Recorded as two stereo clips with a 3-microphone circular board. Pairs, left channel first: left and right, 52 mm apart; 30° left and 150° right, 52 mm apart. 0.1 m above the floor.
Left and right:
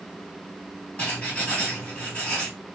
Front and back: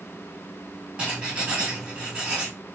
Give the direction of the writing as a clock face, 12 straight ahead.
7 o'clock.